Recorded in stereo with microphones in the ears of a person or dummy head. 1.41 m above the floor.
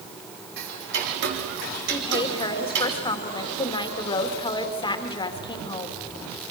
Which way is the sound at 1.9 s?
25° left (ahead or behind).